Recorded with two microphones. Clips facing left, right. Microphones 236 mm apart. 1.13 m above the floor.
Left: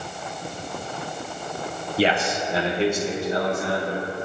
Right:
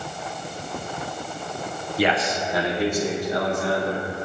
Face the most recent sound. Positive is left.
turn(degrees=20)  # may be behind; listen again after turning